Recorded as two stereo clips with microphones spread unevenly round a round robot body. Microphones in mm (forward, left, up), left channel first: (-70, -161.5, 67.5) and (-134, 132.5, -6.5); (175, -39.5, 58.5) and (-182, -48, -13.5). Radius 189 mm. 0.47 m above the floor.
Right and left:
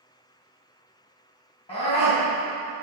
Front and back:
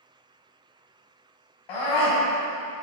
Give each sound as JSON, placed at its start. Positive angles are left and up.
{"t": 1.7, "sound": "a scream", "azimuth_deg": 0, "distance_m": 3.0}